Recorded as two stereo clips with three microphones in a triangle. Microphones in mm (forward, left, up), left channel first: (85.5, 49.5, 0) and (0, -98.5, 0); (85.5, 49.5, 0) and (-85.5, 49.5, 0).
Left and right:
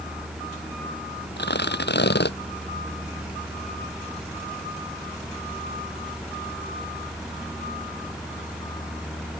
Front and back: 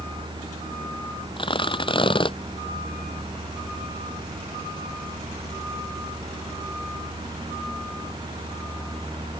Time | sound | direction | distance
1.4 | tearing paper | 60° left | ?